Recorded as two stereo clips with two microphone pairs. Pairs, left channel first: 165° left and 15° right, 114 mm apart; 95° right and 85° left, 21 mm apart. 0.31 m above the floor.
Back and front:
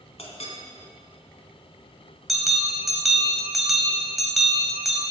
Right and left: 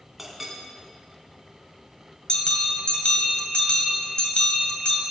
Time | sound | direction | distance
0.2 | a clink | 165° left | 2 m
2.3 | a bell | 105° right | 2 m